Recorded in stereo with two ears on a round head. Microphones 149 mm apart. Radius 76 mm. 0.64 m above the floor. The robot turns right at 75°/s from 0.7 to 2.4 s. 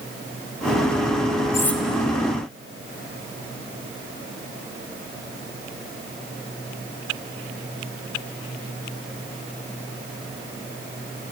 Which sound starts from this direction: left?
Cutlery clinking, at 1.5 s.